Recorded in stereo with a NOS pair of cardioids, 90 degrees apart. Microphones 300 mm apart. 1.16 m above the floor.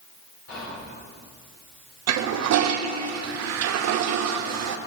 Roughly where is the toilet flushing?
Ahead right.